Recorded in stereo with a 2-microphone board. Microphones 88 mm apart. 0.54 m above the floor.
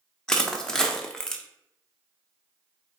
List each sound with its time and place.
0.3 s crushing: 5° left (ahead or behind), 0.6 m